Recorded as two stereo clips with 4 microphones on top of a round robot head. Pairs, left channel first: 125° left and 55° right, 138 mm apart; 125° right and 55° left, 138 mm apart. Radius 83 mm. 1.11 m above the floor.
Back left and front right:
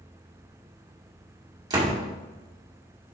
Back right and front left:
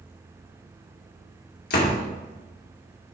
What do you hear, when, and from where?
1.7 s a door slam: 115° right, 2 m